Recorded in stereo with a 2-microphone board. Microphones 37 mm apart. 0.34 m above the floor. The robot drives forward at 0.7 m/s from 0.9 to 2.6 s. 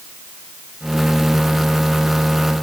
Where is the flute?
I don't hear a flute.